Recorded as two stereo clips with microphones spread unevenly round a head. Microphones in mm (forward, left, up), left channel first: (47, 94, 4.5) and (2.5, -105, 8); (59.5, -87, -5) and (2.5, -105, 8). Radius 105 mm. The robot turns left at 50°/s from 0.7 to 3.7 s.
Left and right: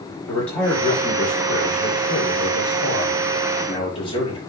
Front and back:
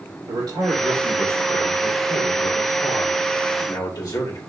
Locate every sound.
0.3 s a man speaking: 165° left, 5.5 m; by 4.4 s 15° left, 5.5 m